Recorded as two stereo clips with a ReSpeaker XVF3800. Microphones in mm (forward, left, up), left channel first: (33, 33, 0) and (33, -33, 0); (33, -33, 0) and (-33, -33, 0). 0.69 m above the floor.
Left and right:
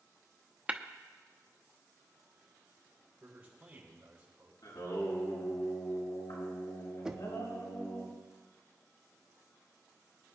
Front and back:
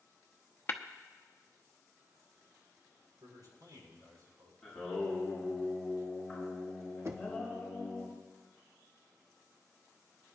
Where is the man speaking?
160° right, 6.5 m.